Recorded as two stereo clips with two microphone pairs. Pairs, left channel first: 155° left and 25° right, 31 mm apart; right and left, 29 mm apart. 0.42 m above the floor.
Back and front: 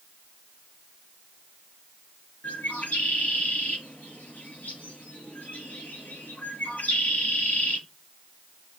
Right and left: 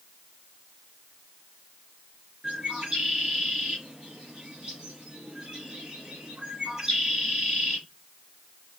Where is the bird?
155° left, 3 m.